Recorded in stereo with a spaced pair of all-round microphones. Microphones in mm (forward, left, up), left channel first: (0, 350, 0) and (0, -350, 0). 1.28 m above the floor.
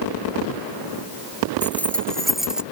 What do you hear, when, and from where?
1.6 s keys jangling: 5° left (ahead or behind); by 2.6 s centre (ahead or behind)